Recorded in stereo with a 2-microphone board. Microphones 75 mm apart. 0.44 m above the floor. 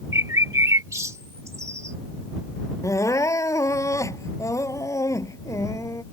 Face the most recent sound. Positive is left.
turn(degrees=45)  # may be behind; listen again after turning